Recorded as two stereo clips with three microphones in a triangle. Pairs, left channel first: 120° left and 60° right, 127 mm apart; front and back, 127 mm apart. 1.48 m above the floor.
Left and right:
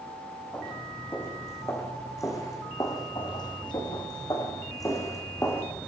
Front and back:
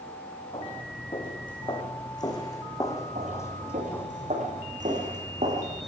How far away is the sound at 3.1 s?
About 8.5 m.